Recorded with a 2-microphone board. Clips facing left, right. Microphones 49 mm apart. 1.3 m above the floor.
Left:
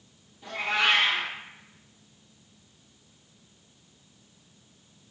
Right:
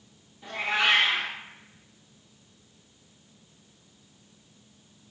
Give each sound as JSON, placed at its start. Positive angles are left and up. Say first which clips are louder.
{"t": 0.4, "sound": "a cat meowing", "louder": "even", "side_deg": -10, "distance_m": 0.9}